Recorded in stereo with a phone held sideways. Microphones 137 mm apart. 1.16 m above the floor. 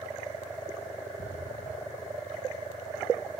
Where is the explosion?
75° left (ahead or behind).